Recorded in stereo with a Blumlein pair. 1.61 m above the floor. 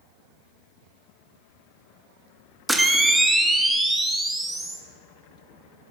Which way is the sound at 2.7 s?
5° right.